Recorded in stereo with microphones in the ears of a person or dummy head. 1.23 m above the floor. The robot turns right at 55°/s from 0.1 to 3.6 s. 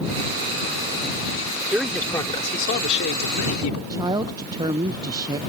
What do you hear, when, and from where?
1.7 s a man speaking: 10° right; by 3.8 s 95° left
3.9 s a woman speaking: 25° right (ahead or behind)